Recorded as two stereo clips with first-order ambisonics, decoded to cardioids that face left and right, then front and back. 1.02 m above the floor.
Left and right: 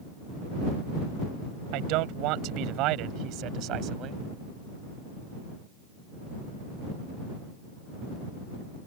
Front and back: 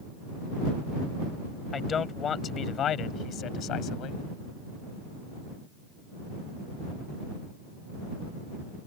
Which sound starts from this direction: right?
A man speaking, at 1.7 s.